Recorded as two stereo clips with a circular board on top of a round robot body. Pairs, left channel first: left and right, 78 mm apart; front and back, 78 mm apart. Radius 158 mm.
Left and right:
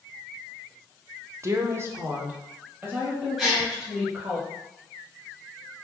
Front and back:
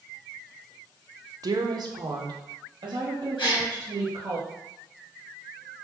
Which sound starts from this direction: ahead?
A gasp, at 3.4 s.